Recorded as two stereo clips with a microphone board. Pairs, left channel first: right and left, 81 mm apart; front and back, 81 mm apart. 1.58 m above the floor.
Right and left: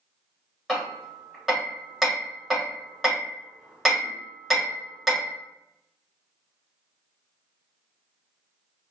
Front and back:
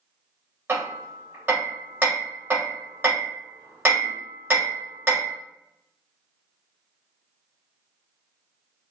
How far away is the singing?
I don't hear singing.